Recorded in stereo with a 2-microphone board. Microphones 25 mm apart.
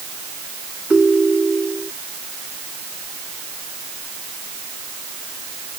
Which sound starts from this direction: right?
A ringtone, at 0.9 s.